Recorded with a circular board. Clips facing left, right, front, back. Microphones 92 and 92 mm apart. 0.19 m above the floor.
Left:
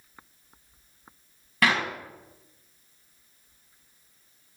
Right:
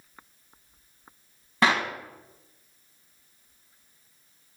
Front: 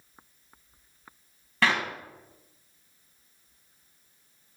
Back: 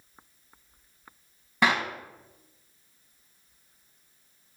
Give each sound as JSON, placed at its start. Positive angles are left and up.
{"t": 1.6, "sound": "a clap", "azimuth_deg": -125, "distance_m": 1.3}